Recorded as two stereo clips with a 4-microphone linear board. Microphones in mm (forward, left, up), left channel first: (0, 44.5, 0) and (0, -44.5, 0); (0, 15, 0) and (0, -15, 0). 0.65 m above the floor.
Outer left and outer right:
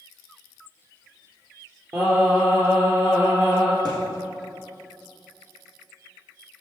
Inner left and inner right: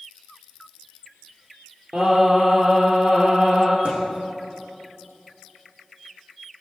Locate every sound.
1.9 s singing: 35° right (ahead or behind), 4 m
3.9 s a thud: 55° right (ahead or behind), 5.5 m